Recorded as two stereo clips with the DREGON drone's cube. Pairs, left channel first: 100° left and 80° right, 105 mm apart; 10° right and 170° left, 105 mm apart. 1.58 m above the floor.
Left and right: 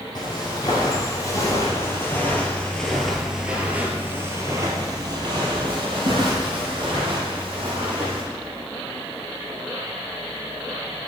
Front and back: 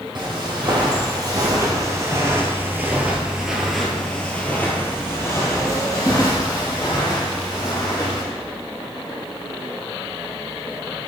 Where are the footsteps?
140° left, 2.5 m; by 8.2 s 55° right, 3.5 m.